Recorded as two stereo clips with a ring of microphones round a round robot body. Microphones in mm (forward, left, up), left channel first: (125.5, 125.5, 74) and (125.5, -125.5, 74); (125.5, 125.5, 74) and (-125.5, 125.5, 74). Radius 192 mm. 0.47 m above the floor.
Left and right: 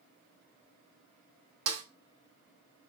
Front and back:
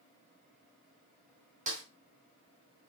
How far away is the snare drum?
About 1.6 m.